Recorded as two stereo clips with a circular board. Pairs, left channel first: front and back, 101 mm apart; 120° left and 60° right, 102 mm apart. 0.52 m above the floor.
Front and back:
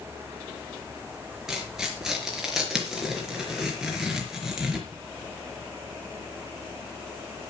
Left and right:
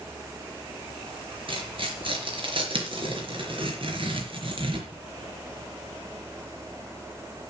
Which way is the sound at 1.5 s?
95° right.